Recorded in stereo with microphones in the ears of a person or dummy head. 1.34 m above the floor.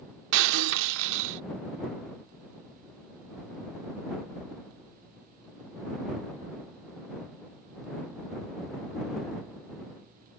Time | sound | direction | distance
0.3 | breaking glass | 60° right (ahead or behind) | ?